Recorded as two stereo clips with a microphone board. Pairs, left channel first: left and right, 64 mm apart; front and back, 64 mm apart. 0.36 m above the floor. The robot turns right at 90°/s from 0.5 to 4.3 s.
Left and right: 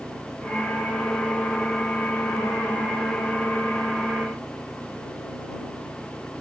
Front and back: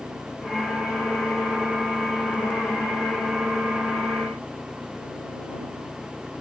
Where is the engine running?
50° right; by 6.4 s 70° right.